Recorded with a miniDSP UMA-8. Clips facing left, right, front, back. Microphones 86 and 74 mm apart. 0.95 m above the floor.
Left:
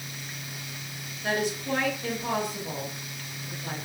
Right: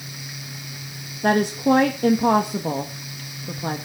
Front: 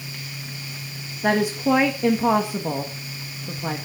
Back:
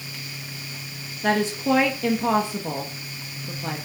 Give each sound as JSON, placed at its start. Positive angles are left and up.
{"t": 1.2, "sound": "a woman speaking", "azimuth_deg": -75, "distance_m": 1.6}